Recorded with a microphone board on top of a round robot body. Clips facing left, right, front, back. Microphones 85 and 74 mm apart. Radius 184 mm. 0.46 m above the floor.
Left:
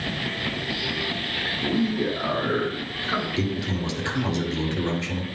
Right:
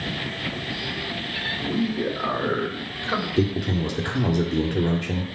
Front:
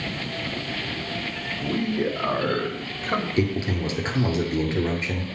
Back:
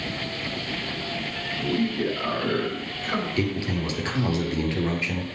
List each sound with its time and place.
1.6 s a man speaking: 15° right, 3 m; by 3.3 s 35° right, 1.9 m
3.4 s a man speaking: 60° right, 2 m